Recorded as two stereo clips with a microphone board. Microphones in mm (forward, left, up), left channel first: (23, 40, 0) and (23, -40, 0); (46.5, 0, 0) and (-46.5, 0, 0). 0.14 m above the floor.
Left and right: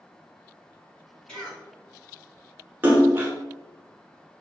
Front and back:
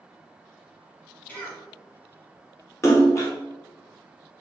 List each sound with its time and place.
1.3 s a cough: 30° left, 1.4 m
2.8 s a splash: 40° right, 0.9 m